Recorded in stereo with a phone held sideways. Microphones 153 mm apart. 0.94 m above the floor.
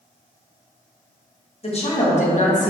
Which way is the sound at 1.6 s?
40° left (ahead or behind).